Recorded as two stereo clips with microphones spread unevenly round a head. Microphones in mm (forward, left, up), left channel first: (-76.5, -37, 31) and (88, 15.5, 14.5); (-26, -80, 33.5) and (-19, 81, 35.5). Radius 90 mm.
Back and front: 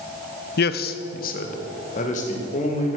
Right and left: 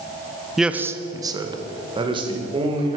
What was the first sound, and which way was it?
A man speaking, 175° left.